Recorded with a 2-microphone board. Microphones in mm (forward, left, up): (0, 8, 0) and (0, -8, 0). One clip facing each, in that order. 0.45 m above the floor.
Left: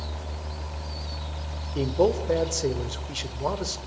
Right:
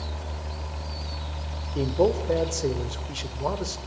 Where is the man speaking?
10° left (ahead or behind), 1.9 m.